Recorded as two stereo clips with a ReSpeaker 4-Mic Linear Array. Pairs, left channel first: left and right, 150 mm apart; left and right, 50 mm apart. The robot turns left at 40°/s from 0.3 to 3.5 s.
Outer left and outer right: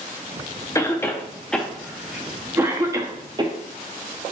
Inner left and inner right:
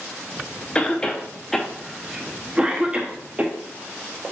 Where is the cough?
20° left (ahead or behind), 0.5 m; by 3.5 s 30° right (ahead or behind), 0.5 m.